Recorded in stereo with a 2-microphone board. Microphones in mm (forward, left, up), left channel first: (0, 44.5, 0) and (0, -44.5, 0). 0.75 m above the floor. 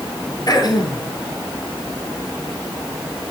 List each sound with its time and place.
0.5 s throat clearing: 45° left (ahead or behind), 3 m